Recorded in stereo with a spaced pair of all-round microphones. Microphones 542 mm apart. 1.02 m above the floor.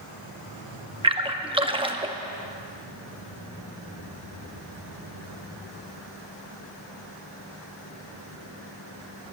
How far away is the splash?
About 0.8 m.